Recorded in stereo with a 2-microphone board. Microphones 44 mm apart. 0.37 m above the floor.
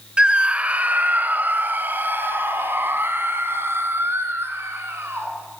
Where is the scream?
25° right (ahead or behind), 1.0 m; by 5.3 s 70° right (ahead or behind), 3.5 m.